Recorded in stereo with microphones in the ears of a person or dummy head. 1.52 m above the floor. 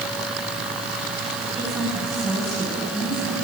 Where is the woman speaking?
Centre (ahead or behind), 8.5 m.